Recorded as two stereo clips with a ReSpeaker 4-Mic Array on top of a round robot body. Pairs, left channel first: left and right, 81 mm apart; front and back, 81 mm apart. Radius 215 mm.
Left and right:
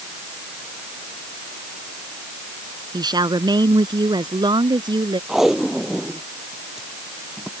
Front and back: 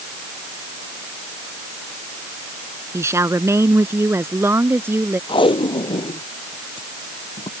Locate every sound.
2.9 s a woman speaking: 125° right; by 5.2 s 115° right
5.3 s tape being pulled: 5° right